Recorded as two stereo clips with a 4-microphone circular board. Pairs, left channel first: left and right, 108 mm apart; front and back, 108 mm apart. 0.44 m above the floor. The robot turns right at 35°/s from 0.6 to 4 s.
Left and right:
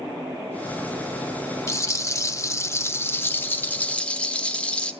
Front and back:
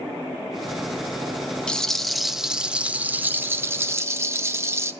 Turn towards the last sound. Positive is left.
turn(degrees=155)